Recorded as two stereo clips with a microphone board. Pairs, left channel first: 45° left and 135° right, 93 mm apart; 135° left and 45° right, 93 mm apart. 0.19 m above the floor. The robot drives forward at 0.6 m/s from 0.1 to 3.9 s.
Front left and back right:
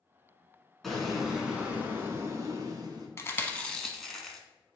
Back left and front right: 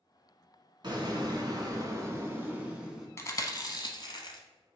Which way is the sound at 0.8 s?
40° right.